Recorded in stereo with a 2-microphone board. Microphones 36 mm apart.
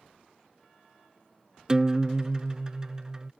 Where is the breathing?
I don't hear breathing.